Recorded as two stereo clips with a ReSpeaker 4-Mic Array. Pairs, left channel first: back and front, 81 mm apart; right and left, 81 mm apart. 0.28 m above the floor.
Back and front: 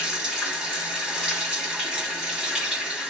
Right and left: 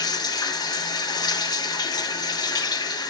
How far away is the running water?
About 1.8 m.